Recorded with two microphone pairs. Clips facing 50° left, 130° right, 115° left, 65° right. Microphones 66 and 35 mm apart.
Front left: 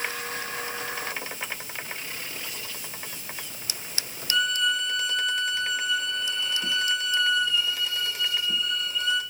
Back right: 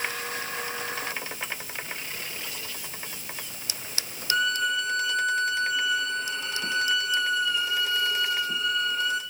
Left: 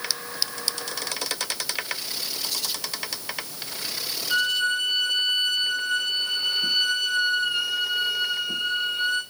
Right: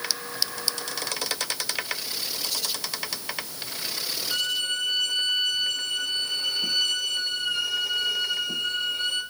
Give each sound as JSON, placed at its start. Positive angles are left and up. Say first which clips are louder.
{"t": 4.3, "sound": "a violin", "louder": "even, left 5 dB", "azimuth_deg": -170, "distance_m": 4.0}